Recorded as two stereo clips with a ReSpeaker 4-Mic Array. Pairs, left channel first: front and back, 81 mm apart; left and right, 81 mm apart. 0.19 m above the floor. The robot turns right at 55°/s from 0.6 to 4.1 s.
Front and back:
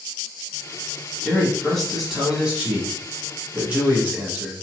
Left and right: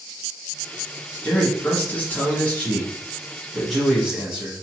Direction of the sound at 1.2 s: 50° left.